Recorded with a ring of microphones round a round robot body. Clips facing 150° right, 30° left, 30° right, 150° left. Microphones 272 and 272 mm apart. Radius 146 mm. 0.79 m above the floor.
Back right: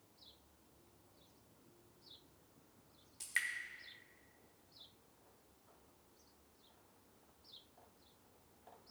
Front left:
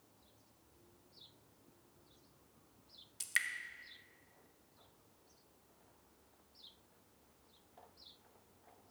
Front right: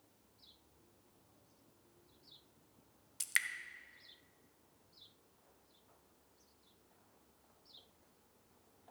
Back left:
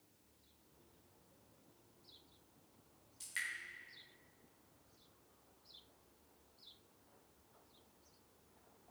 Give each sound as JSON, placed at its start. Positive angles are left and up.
{"t": 3.2, "sound": "dripping", "azimuth_deg": -40, "distance_m": 0.6}